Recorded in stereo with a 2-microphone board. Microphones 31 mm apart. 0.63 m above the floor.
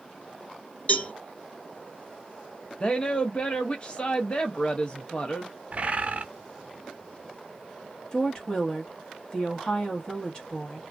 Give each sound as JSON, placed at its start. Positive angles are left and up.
{"t": 0.9, "sound": "a cowbell", "side_deg": 45, "distance_m": 1.0}
{"t": 2.8, "sound": "a woman speaking", "side_deg": 30, "distance_m": 0.6}
{"t": 5.7, "sound": "a bird", "side_deg": -45, "distance_m": 0.6}
{"t": 8.1, "sound": "a woman speaking", "side_deg": 25, "distance_m": 1.0}